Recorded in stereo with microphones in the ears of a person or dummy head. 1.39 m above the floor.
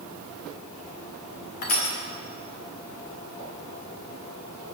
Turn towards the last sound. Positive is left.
turn(degrees=45)  # may be behind; listen again after turning